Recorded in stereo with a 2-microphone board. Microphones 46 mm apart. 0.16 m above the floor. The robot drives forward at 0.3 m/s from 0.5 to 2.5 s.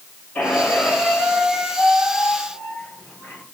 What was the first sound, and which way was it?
A squeak, 35° left (ahead or behind).